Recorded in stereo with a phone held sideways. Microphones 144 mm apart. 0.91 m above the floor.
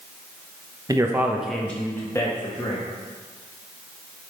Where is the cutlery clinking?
No cutlery clinking in this recording.